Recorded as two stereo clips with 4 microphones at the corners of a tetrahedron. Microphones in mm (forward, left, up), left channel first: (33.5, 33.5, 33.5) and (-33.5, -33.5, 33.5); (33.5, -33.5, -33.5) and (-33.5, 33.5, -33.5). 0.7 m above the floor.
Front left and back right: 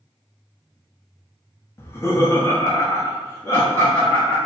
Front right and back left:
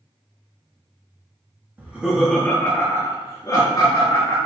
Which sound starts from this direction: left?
Laughter, at 1.8 s.